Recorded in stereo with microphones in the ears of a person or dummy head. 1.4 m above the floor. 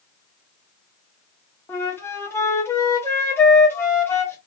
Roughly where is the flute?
Centre.